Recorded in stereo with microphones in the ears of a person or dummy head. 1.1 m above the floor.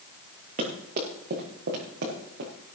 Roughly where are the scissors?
I don't hear scissors.